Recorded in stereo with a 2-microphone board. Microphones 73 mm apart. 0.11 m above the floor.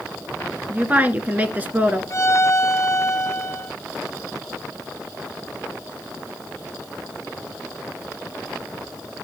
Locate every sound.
0.7 s a woman speaking: 20° right (ahead or behind), 1.2 m
2.1 s a violin: 40° left (ahead or behind), 1.4 m